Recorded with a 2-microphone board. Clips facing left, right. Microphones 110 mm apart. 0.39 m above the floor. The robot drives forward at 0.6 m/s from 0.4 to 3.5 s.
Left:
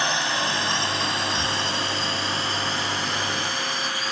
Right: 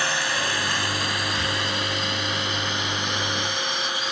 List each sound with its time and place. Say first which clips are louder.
0.0 s a drone: left 1 dB; 20° left (ahead or behind); by 4.1 s 40° left (ahead or behind)
1.3 s breathing: left 1 dB; 25° left (ahead or behind)